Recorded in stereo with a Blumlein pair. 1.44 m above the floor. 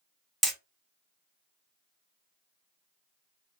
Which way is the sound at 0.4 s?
Straight ahead.